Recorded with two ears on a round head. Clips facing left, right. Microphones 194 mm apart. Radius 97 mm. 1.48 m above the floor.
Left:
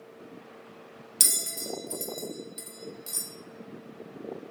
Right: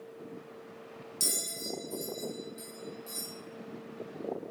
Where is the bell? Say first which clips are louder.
Left 1 dB; 70° left (ahead or behind), 0.7 m.